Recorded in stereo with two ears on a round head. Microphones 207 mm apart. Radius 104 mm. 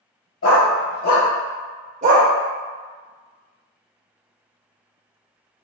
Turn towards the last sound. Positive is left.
turn(degrees=-45)  # may be behind; listen again after turning